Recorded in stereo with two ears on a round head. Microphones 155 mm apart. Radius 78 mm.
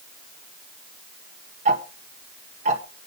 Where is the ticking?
45° right (ahead or behind), 1.6 m.